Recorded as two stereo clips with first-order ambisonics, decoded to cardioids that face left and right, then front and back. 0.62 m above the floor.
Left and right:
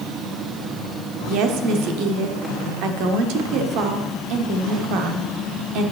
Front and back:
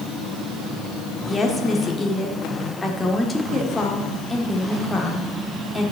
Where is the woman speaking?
75° right, 1.2 m.